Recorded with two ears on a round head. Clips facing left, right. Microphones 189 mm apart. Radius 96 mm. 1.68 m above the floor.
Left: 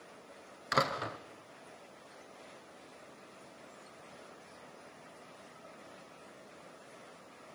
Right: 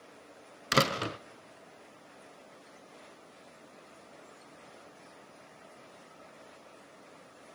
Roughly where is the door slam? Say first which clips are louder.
Right 5 dB; right.